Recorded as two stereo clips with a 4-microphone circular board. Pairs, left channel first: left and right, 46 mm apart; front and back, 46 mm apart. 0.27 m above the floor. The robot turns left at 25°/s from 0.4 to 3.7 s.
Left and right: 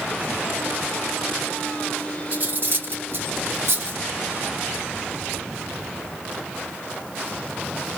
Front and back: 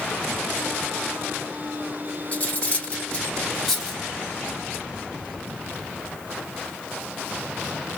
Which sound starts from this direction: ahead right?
Cutlery clinking, at 2.3 s.